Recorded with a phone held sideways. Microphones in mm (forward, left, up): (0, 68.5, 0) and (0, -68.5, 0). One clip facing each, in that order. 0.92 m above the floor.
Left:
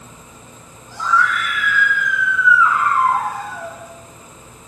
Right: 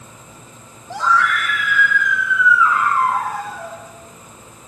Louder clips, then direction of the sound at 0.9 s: Right 1 dB; 80° right.